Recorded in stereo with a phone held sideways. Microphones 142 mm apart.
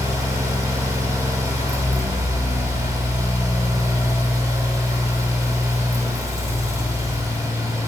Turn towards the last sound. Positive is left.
turn(degrees=-20)  # may be behind; listen again after turning